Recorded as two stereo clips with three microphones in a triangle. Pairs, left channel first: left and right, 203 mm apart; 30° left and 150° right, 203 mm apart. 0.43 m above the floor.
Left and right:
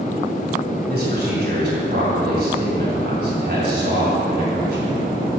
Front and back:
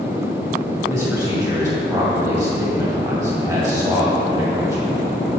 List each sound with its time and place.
0.9 s a man speaking: 80° right, 2 m